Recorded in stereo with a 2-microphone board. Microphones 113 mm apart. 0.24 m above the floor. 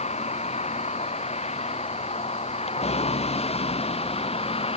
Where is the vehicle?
75° left (ahead or behind); by 4.8 s 60° left (ahead or behind).